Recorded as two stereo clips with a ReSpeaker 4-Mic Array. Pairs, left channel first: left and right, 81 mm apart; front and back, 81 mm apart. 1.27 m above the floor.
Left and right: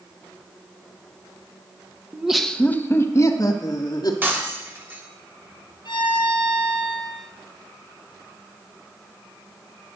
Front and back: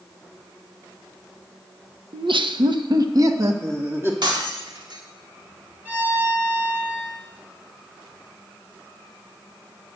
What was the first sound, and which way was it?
Laughter, 165° right.